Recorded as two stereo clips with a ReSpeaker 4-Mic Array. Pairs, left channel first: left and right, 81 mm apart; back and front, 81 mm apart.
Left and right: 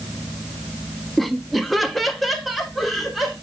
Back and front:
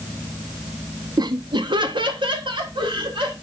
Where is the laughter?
Straight ahead, 0.6 m.